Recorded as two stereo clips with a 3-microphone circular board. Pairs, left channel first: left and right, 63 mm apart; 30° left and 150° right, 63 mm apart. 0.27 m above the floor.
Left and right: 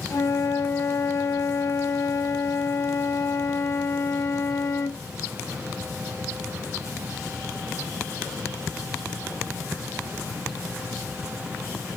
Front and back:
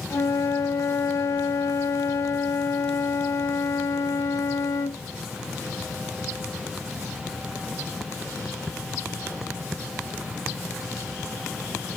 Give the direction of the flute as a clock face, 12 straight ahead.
10 o'clock.